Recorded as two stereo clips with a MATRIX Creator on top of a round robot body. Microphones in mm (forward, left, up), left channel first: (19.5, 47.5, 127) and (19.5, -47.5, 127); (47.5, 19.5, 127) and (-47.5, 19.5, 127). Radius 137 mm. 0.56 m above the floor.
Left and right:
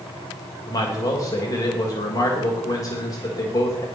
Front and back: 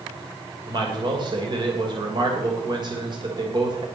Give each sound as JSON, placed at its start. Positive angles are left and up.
{"t": 0.7, "sound": "a man speaking", "azimuth_deg": 145, "distance_m": 3.0}